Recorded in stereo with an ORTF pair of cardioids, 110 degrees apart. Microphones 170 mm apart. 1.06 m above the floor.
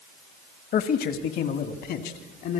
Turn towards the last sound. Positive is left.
turn(degrees=70)